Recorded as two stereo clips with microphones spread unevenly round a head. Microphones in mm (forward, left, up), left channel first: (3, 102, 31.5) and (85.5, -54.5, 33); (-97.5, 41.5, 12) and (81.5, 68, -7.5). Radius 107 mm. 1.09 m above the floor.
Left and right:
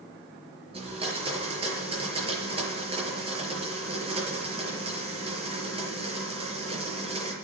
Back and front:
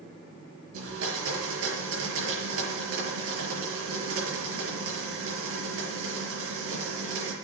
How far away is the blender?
About 6.5 m.